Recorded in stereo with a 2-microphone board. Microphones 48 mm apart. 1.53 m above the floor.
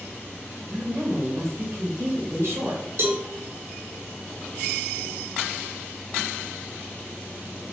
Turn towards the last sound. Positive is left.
turn(degrees=-55)  # may be behind; listen again after turning